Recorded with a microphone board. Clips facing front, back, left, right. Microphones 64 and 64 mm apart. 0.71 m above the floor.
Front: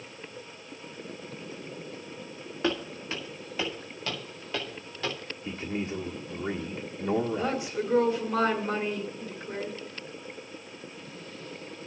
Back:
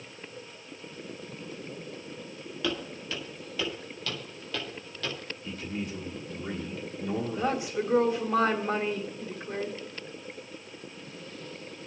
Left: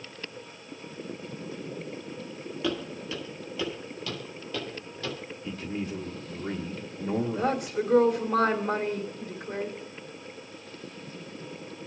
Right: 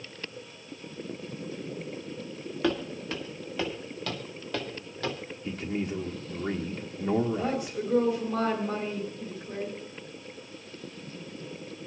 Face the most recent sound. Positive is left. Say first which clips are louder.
# back 1 dB, left 3 dB
turn(degrees=115)